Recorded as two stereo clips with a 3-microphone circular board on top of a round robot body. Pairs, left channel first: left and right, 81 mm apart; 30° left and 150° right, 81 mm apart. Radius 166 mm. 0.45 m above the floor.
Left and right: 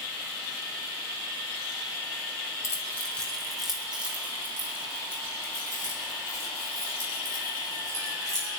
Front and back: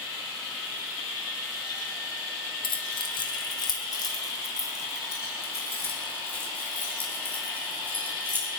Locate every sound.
2.6 s keys jangling: 30° left, 1.9 m; by 8.5 s 45° right, 9.5 m